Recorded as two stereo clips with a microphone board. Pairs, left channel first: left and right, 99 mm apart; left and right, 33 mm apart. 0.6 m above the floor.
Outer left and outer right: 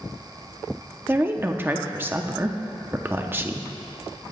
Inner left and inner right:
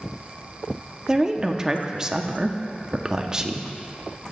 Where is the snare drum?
I don't hear a snare drum.